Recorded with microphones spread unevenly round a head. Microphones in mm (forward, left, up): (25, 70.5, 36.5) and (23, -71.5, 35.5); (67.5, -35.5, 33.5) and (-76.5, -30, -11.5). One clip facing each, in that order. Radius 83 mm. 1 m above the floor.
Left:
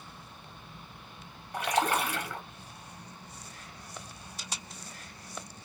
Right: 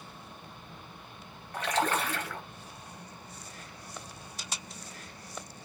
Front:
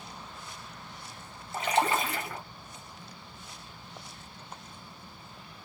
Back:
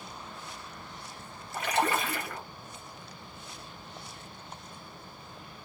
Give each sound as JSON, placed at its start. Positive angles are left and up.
{"t": 1.5, "sound": "a splash", "azimuth_deg": 15, "distance_m": 1.0}